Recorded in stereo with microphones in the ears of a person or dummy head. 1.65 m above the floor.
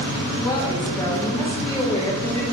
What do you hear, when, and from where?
0.4 s a woman speaking: 20° left (ahead or behind), 0.6 m